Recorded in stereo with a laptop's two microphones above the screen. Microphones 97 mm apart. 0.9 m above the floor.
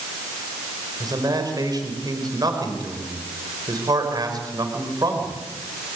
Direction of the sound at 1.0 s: 40° right (ahead or behind).